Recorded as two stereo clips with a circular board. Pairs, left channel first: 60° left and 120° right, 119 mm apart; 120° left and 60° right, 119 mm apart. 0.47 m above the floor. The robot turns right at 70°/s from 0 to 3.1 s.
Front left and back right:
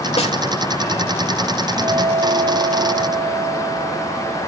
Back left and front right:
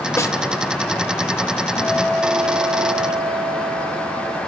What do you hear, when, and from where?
0.2 s a snare drum: 55° left, 1.6 m; by 0.4 s 70° left, 1.6 m
1.8 s a guitar: straight behind, 2.5 m; by 4.5 s 85° right, 2.5 m